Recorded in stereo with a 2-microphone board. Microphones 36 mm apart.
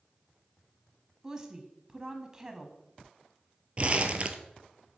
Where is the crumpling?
35° right (ahead or behind), 0.7 m.